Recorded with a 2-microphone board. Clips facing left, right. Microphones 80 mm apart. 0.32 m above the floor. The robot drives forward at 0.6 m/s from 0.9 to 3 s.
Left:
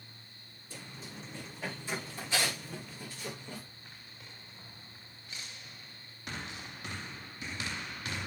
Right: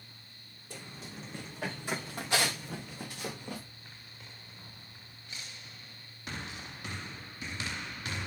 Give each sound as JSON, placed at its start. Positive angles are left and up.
{"t": 0.7, "sound": "running footsteps", "side_deg": -60, "distance_m": 5.0}